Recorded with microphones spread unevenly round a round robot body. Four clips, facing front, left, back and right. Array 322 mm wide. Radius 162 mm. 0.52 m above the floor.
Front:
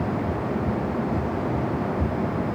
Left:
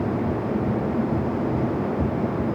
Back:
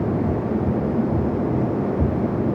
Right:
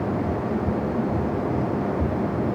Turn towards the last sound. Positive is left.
No sound to turn to.